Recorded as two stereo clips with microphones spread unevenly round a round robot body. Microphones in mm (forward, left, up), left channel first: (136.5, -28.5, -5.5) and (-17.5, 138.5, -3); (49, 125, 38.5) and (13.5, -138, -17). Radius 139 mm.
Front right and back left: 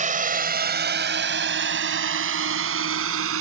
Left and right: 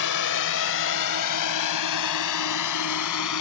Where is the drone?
85° left; by 3.4 s 115° left.